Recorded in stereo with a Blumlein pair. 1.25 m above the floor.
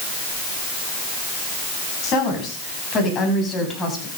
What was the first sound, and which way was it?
A woman speaking, 30° left.